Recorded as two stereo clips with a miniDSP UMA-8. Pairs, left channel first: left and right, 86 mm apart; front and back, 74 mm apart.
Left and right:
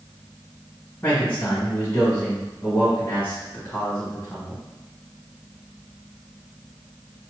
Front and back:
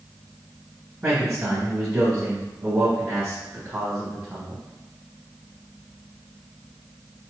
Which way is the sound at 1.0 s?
150° left.